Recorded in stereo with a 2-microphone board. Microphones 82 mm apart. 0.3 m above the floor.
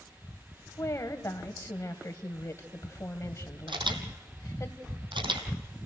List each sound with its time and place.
0.8 s a woman speaking: 40° left (ahead or behind), 1.4 m
3.7 s a camera shutter: 80° right, 2 m